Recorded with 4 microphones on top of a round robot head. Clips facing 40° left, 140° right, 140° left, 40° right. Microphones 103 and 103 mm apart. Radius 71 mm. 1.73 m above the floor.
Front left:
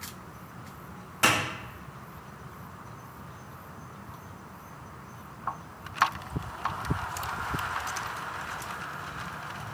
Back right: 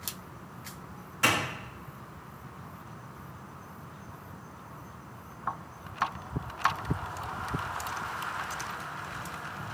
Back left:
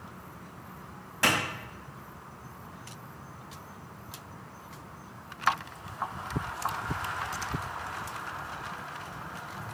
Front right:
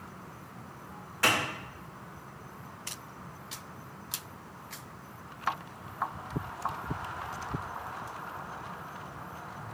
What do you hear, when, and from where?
1.2 s a clap: 75° left, 1.9 m